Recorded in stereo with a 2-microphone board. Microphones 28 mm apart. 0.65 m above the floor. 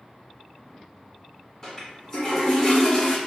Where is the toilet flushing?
10° left (ahead or behind), 1.3 m.